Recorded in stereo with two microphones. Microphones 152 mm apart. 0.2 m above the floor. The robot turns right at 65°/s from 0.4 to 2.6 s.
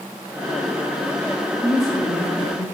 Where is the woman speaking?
15° right, 2 m; by 2.6 s 50° left, 2 m.